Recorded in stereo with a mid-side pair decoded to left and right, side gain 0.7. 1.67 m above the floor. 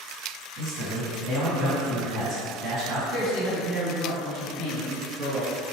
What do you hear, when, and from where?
0.6 s a man speaking: 50° right, 1.9 m
3.1 s a man speaking: 50° right, 1.9 m